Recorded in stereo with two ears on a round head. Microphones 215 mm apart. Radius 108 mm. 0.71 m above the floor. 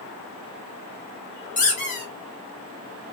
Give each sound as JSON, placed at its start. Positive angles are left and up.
{"t": 1.6, "sound": "a squeak", "side_deg": 35, "distance_m": 0.9}